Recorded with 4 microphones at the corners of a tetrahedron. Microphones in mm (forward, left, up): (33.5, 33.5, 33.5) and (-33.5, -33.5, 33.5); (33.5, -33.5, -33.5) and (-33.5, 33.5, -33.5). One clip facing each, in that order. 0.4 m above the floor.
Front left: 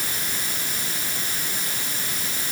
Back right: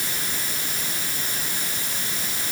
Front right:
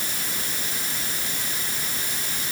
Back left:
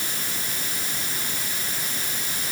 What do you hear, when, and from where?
Only background noise.